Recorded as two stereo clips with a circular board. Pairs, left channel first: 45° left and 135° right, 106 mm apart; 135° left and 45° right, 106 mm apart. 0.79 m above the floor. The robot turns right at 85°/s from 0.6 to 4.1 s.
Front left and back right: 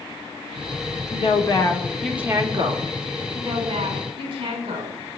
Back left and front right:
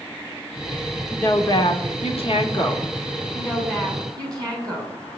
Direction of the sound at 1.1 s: 55° left.